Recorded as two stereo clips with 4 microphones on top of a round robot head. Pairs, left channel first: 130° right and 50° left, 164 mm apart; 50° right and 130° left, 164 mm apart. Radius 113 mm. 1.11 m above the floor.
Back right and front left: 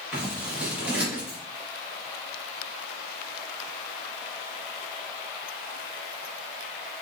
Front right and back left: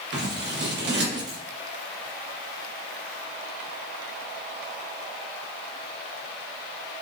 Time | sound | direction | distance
0.1 | scissors | 130° left | 1.4 m